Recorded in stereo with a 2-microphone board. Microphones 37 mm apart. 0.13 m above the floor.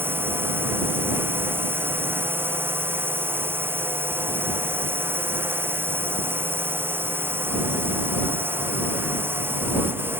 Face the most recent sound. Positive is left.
turn(degrees=-75)  # may be behind; listen again after turning